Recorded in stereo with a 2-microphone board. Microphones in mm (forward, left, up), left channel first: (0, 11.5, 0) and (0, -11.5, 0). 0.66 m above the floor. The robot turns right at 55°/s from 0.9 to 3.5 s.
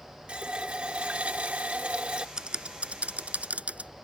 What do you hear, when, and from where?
0.3 s a running tap: 125° right; by 2.3 s 50° right
2.4 s typing on a keyboard: 35° right (ahead or behind); by 3.9 s 85° right